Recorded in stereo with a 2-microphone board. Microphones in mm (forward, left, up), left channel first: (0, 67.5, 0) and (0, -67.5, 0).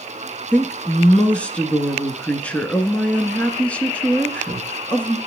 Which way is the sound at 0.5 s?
10° left (ahead or behind).